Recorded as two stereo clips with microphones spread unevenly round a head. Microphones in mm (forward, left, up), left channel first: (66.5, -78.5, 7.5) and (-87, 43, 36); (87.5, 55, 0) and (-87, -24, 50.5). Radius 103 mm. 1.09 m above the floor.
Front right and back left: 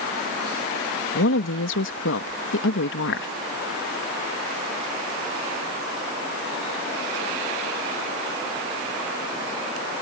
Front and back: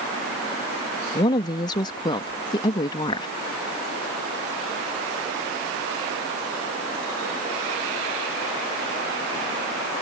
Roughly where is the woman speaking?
Ahead right.